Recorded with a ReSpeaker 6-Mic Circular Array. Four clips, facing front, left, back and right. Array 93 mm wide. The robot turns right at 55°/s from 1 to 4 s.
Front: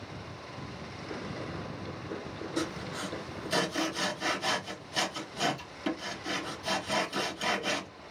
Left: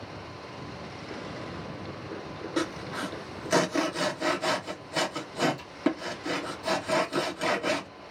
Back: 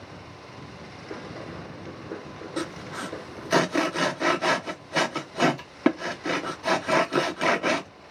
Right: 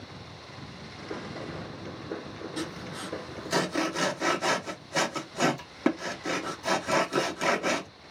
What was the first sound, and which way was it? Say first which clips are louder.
Sawing: left 7 dB, back 3 dB; 110° left.